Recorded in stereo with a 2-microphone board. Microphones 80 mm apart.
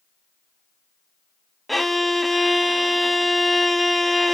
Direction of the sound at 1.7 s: Centre (ahead or behind).